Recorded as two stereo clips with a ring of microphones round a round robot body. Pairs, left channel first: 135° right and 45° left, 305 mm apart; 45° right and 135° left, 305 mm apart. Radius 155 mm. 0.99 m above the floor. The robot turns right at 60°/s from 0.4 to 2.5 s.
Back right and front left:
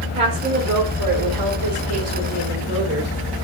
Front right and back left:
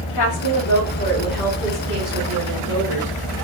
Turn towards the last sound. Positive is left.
turn(degrees=100)